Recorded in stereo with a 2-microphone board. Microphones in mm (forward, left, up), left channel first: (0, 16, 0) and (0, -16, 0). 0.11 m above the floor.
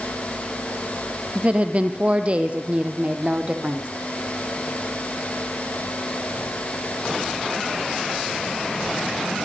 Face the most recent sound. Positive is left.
turn(degrees=-30)  # may be behind; listen again after turning